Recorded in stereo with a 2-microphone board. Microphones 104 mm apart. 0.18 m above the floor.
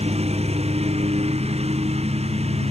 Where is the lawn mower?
85° right.